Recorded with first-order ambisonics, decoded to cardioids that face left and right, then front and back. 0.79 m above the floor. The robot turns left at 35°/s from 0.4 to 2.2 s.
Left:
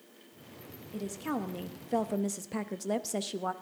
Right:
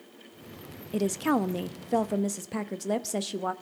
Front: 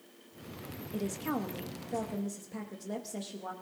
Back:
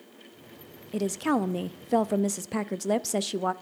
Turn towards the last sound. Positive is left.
turn(degrees=-170)